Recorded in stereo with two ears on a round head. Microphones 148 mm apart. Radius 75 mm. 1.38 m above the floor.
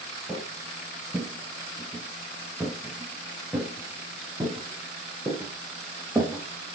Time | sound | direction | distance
0.3 | footsteps | centre (ahead or behind) | 1.8 m